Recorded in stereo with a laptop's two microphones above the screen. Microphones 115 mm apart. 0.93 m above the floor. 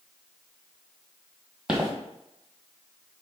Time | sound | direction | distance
1.7 | footsteps | 10° right (ahead or behind) | 1.6 m